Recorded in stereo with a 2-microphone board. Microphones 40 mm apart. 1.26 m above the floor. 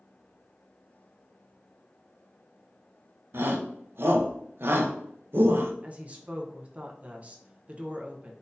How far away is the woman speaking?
About 0.6 m.